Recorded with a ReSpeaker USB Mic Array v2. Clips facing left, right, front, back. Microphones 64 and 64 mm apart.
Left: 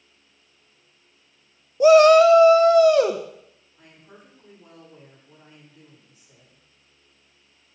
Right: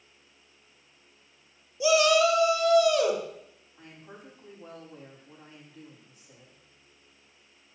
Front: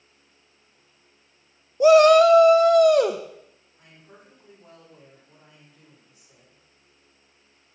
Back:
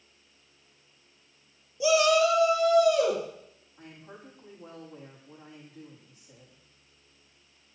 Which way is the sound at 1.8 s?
45° left.